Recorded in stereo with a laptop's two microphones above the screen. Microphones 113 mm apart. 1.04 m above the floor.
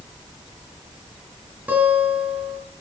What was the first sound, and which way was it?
A guitar, 15° right (ahead or behind).